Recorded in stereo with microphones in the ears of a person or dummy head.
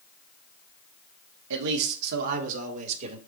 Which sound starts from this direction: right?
A man speaking, at 1.5 s.